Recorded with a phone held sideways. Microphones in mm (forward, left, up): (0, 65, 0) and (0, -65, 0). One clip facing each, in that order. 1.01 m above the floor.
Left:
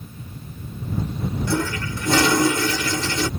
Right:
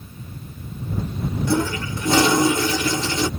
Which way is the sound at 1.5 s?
20° right (ahead or behind).